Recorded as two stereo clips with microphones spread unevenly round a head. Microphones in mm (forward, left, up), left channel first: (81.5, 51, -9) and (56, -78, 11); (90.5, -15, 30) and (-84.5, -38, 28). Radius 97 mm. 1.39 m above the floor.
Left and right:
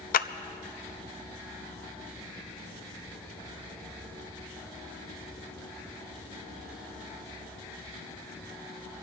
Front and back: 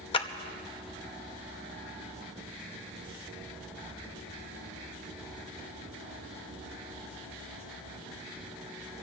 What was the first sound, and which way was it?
A clap, 70° left.